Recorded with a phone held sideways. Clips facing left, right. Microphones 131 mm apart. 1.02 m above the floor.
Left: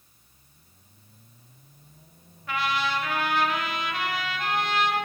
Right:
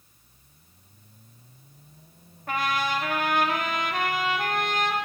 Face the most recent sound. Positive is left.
turn(degrees=-50)  # may be behind; listen again after turning